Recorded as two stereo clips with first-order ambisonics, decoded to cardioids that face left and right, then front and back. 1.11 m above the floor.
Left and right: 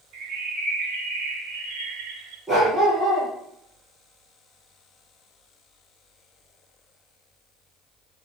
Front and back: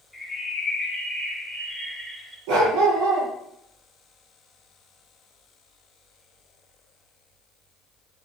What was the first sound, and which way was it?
A bird, 100° right.